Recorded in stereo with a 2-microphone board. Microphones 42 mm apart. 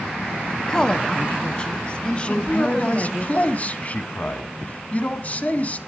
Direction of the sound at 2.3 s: 35° left (ahead or behind).